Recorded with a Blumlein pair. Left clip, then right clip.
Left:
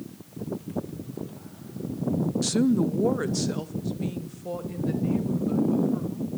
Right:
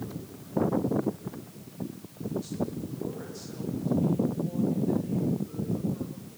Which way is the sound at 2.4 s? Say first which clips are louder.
Left 11 dB; 55° left.